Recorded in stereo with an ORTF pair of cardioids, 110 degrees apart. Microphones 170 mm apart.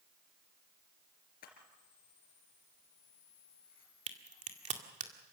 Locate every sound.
1.4 s a camera shutter: 60° left, 3.5 m
4.1 s a crack: 40° right, 2 m